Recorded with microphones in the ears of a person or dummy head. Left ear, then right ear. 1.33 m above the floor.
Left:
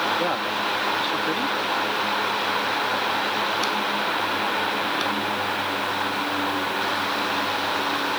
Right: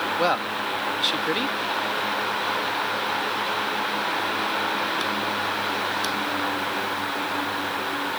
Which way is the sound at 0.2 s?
40° right (ahead or behind).